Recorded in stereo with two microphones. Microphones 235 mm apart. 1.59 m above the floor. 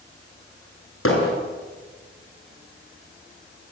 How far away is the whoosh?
I don't hear a whoosh.